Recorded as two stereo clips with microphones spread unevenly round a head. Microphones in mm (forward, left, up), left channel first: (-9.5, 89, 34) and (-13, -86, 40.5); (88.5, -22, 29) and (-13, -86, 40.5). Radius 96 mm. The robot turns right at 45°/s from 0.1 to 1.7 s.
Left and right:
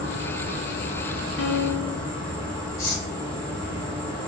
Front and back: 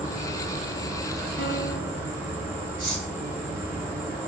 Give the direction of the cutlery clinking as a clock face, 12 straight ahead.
7 o'clock.